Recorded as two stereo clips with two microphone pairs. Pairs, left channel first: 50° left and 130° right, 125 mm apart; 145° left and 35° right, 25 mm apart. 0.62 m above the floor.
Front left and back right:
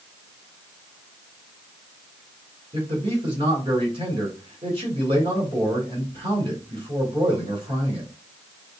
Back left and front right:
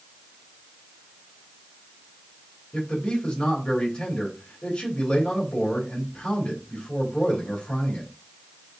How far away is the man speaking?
About 3 m.